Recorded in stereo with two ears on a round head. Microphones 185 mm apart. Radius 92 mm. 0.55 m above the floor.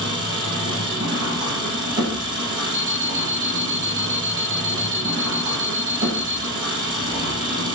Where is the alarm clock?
65° right (ahead or behind), 1.3 m.